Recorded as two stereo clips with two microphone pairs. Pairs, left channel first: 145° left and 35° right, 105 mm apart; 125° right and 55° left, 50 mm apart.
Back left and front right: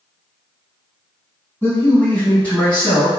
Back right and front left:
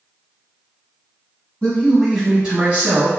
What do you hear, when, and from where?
1.6 s a man speaking: 170° right, 1.0 m; by 3.1 s 60° left, 1.1 m